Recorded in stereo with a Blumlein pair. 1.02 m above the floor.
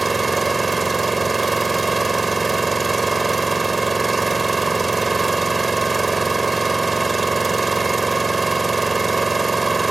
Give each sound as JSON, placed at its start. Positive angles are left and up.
{"t": 0.0, "sound": "an engine running", "azimuth_deg": -10}